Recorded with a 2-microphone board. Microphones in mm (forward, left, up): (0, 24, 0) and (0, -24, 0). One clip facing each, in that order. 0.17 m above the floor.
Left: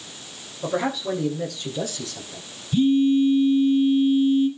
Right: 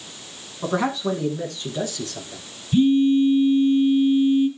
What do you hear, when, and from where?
0.6 s a man speaking: 50° right (ahead or behind), 7 m; by 2.4 s 40° right (ahead or behind), 8 m
2.7 s a phone buzzing: 35° right (ahead or behind), 2.5 m